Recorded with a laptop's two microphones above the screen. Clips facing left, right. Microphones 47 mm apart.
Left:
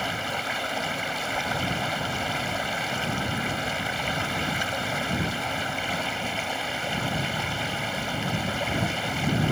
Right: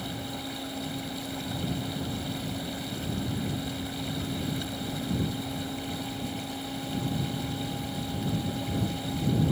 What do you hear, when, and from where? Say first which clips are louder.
0.0 s running water: left 7 dB; 85° left